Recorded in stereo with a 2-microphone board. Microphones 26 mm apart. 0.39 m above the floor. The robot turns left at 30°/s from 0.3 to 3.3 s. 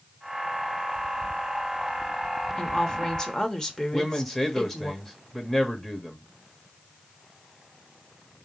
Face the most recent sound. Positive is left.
turn(degrees=15)  # may be behind; listen again after turning